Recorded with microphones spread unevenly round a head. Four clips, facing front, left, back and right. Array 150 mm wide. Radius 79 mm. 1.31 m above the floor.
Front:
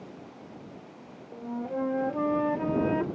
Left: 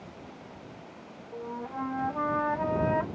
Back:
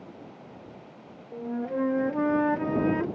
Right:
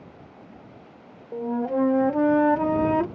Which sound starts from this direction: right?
A flute, at 1.3 s.